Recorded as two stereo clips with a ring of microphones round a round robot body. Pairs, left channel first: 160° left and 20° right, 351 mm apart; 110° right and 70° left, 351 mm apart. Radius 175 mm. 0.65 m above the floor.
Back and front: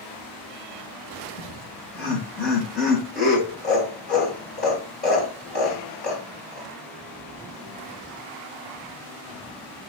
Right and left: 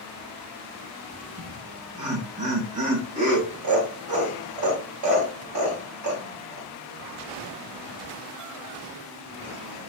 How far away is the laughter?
About 3 m.